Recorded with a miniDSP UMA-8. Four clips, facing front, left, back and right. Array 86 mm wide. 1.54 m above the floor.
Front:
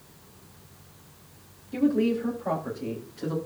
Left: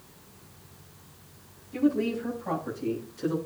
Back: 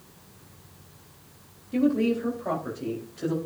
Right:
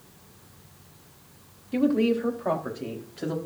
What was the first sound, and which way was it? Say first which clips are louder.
A woman speaking: right 3 dB, even; 95° right.